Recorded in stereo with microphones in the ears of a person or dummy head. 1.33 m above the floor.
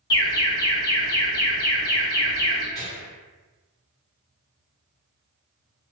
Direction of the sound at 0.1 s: 20° left (ahead or behind).